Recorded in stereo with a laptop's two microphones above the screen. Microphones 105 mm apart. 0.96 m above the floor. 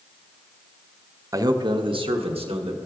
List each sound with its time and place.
1.3 s a man speaking: 30° right (ahead or behind), 0.6 m; by 2.8 s 75° right (ahead or behind), 1.0 m